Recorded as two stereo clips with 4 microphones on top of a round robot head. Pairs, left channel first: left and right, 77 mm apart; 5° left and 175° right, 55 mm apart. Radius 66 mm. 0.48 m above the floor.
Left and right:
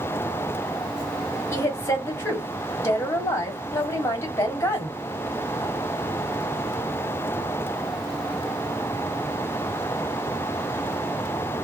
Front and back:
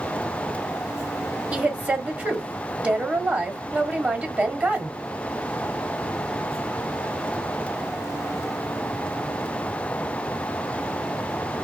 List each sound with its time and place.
1.5 s a woman speaking: 135° left, 1.3 m